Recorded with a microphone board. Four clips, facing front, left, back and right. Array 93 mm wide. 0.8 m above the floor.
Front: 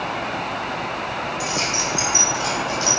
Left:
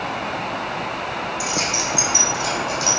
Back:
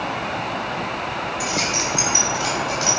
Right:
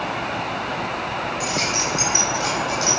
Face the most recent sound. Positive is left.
turn(degrees=-145)